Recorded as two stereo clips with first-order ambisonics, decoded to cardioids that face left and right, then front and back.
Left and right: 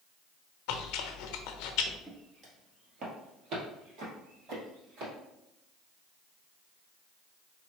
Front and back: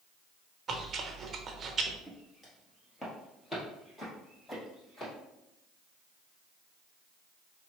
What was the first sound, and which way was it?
Chewing, 115° left.